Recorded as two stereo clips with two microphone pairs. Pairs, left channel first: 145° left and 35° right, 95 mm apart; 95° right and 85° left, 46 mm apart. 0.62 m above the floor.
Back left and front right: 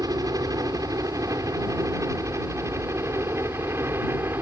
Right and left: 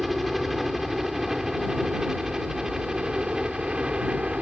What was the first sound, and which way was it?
A helicopter, 5° right.